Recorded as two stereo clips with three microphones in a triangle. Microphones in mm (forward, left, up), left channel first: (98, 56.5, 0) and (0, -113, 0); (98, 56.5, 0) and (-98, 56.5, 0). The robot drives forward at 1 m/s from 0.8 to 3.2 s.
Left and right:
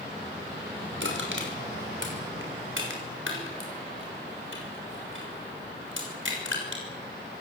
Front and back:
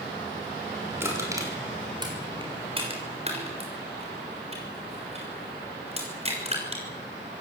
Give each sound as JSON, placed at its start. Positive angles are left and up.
{"t": 1.0, "sound": "crushing", "azimuth_deg": -100, "distance_m": 5.5}